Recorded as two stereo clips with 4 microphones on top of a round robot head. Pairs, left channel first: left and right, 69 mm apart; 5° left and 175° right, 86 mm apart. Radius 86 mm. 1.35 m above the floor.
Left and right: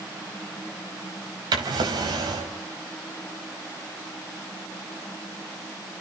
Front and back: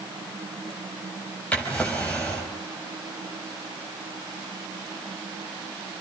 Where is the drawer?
75° right, 4 m.